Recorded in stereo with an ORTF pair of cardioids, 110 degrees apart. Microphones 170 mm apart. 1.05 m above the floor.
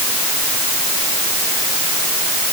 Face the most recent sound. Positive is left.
No sound to turn to.